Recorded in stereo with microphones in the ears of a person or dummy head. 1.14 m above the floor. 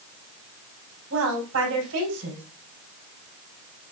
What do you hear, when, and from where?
1.1 s a woman speaking: 80° right, 5 m